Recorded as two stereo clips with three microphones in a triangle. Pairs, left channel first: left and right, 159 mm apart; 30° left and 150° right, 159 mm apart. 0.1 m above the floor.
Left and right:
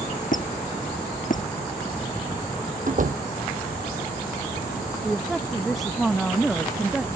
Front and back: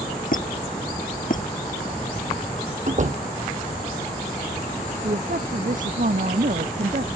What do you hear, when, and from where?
0.3 s a squeak: 60° left
2.9 s a door slam: 115° right
5.0 s a woman speaking: straight behind